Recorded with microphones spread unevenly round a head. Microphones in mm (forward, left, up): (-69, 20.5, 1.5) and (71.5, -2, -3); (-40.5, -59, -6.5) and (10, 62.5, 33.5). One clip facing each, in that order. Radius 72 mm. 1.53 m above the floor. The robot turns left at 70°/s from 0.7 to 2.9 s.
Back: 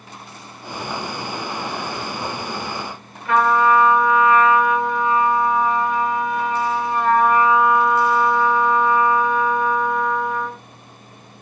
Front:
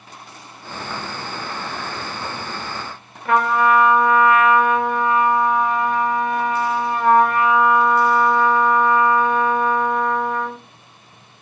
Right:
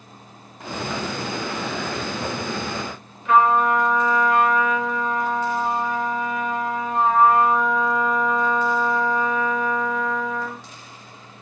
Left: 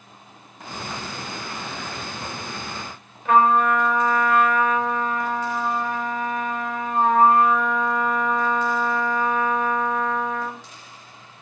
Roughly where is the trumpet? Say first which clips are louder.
Back 1 dB, even; ahead left.